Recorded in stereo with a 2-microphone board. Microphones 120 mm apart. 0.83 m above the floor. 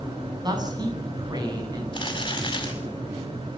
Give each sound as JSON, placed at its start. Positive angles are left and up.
{"t": 0.4, "sound": "a man speaking", "side_deg": -35, "distance_m": 9.0}
{"t": 1.9, "sound": "crumpling", "side_deg": 40, "distance_m": 7.5}